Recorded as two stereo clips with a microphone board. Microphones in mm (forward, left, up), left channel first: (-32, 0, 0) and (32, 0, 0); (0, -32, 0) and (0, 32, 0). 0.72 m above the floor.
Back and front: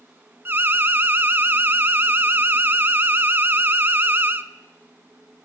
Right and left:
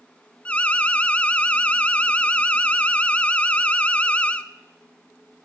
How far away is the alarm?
About 0.6 m.